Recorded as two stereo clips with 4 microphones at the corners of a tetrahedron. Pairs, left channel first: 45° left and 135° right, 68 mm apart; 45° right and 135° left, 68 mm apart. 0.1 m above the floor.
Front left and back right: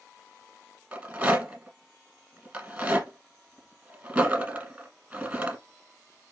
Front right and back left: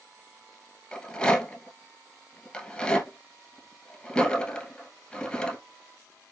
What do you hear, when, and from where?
0.9 s a rattle: 95° right, 1.5 m